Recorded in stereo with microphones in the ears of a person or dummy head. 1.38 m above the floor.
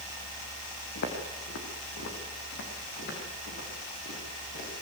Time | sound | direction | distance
0.9 | footsteps | 60° left (ahead or behind) | 6 m